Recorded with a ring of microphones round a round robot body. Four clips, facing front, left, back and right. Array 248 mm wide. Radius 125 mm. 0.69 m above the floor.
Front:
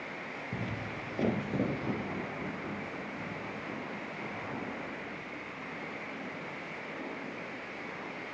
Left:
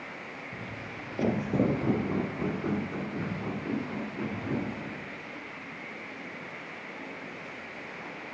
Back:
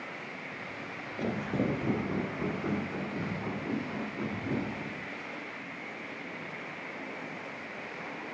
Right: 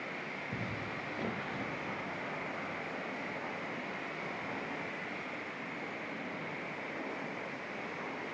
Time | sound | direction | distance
0.5 | footsteps | 15° right | ?